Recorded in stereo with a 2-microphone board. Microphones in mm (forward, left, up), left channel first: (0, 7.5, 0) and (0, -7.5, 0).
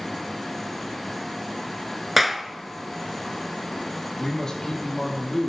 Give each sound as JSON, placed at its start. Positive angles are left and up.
{"t": 2.2, "sound": "a clap", "side_deg": -5, "distance_m": 0.9}
{"t": 4.2, "sound": "a man speaking", "side_deg": 40, "distance_m": 3.5}